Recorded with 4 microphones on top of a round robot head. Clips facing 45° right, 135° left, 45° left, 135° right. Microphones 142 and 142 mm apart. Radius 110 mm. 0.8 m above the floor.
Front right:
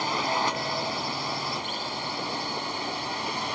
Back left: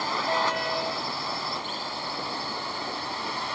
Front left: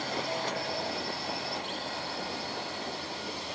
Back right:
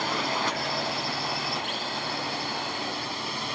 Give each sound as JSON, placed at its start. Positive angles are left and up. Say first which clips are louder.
{"t": 0.0, "sound": "a drone", "louder": "even, back right 4 dB", "azimuth_deg": -115}